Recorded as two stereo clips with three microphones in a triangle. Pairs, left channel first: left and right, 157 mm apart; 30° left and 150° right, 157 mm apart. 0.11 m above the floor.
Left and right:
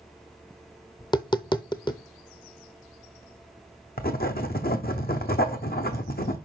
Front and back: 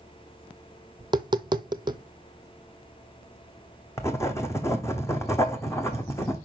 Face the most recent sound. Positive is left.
turn(degrees=100)